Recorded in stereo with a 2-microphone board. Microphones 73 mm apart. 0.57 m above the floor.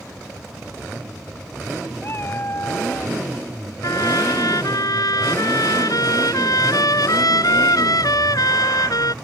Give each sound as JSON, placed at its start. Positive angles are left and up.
{"t": 2.0, "sound": "a cat meowing", "side_deg": 40}
{"t": 3.8, "sound": "a trumpet", "side_deg": 65}